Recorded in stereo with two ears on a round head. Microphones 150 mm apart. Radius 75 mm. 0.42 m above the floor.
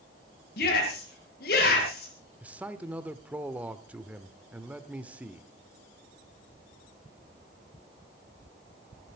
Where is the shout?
60° left (ahead or behind), 7.5 m.